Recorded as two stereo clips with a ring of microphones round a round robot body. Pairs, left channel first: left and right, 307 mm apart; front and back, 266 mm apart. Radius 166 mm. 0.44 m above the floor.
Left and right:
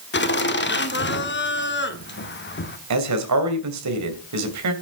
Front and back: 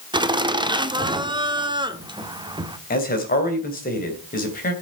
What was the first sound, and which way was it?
Laughter, 115° left.